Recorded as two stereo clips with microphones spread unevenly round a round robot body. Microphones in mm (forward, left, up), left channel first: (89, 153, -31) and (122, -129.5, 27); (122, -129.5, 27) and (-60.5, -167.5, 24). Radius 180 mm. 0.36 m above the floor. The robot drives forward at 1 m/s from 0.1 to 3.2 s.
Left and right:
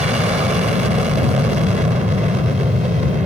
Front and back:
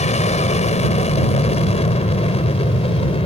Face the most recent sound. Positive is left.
turn(degrees=-15)